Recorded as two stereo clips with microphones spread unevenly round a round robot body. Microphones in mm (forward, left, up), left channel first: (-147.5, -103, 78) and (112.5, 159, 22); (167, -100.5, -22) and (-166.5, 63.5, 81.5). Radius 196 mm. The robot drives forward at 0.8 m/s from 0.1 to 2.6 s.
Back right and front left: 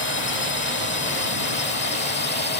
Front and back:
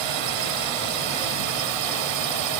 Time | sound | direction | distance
0.0 | a drone | 165° left | ?